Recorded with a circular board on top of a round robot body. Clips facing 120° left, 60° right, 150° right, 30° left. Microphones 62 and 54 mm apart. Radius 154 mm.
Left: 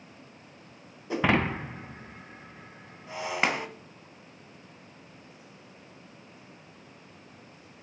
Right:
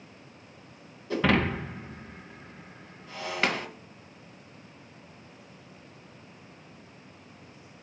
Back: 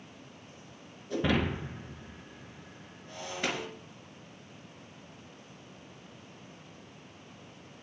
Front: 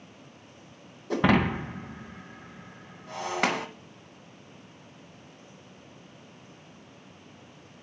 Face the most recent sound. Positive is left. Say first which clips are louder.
# even, front 6 dB
turn(degrees=50)